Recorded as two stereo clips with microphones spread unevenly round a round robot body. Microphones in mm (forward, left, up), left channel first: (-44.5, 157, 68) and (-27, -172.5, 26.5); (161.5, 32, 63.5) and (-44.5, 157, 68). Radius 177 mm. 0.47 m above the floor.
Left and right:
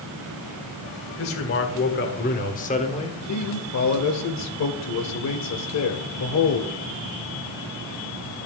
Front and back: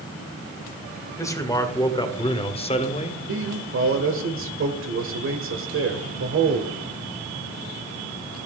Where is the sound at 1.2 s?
45° left, 2 m; by 3.2 s 15° left, 1.4 m.